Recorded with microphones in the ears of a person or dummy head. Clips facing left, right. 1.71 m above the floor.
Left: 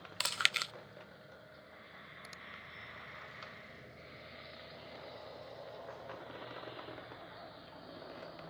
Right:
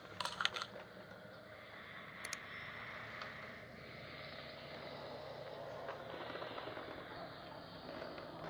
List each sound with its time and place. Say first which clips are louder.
0.2 s chewing: left 2 dB; 30° left (ahead or behind)
2.2 s a finger snap: right 1 dB; 35° right (ahead or behind)